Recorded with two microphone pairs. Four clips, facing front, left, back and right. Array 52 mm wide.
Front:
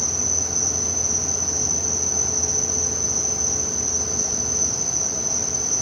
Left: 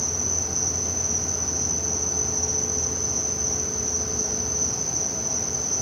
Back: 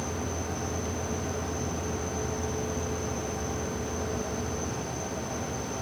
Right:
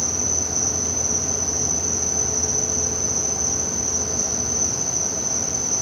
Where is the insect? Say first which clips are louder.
Right 3 dB, front 2 dB; 50° right.